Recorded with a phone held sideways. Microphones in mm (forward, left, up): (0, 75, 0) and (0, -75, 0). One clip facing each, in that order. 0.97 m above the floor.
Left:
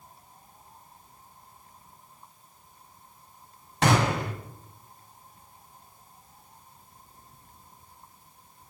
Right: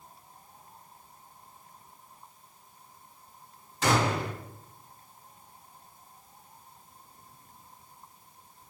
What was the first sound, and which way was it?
A gunshot, 70° left (ahead or behind).